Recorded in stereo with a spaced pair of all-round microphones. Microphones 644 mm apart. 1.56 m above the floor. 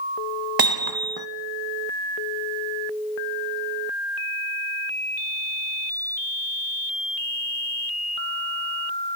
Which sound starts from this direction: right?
Hammering, at 0.6 s.